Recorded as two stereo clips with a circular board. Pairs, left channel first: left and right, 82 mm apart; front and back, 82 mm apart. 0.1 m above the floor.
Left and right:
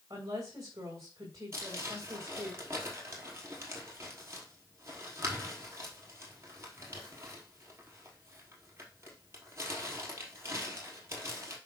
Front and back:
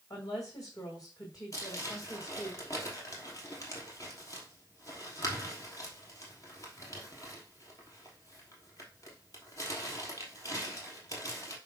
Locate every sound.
0.1 s a woman speaking: 45° right, 6 m
1.5 s crumpling: 40° right, 3 m